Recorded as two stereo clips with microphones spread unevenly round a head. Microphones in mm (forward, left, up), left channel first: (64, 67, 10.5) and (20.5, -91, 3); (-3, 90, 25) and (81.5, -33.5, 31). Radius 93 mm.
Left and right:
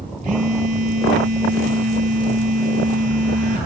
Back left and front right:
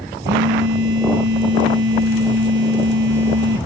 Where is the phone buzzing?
60° right, 2.5 m.